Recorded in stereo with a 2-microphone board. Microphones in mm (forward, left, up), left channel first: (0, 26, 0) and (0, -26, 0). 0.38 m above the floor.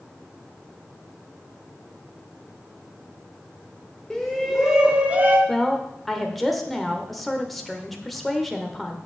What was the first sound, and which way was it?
A shout, 10° left (ahead or behind).